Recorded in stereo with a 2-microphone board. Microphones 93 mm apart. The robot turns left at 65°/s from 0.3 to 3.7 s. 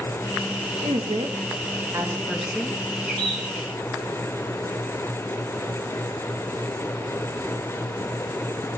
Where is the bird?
5° left (ahead or behind), 6 m; by 3.4 s 30° left (ahead or behind), 6 m.